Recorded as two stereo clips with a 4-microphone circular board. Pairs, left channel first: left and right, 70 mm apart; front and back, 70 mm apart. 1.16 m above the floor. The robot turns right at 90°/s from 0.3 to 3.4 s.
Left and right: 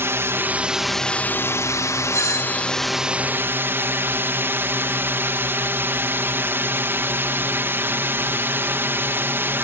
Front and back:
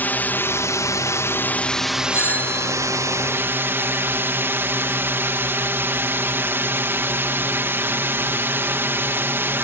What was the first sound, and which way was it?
A drone, 55° right.